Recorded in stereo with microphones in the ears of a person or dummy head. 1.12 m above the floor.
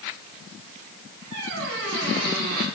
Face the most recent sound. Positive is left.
turn(degrees=-80)